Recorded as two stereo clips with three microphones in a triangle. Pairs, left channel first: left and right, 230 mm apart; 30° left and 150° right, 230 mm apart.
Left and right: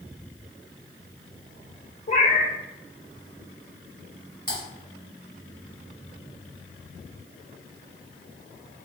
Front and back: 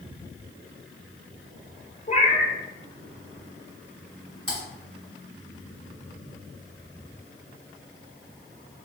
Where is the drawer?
No drawer in this recording.